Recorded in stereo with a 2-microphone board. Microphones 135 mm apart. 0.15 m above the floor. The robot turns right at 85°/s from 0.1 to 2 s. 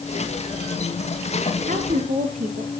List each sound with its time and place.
1.7 s a woman speaking: 65° right (ahead or behind), 3 m